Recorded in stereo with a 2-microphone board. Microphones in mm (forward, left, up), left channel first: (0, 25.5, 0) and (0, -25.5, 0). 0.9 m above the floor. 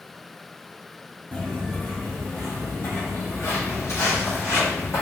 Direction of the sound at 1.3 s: 30° left (ahead or behind).